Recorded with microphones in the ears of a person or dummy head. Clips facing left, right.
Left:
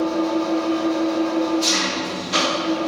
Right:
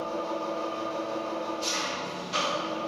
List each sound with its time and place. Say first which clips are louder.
0.0 s an engine running: left 12 dB; 70° left (ahead or behind), 1.0 m